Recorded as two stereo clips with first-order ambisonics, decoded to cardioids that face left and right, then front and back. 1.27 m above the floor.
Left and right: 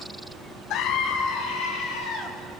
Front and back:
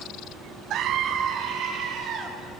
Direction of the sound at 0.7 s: 130° left.